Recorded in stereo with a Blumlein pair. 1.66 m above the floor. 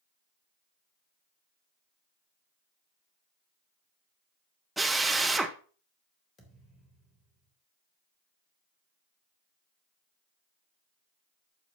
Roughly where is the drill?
Ahead.